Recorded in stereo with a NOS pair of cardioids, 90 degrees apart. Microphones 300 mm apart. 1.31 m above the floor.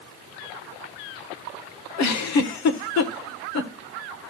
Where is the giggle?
70° left, 1.3 m.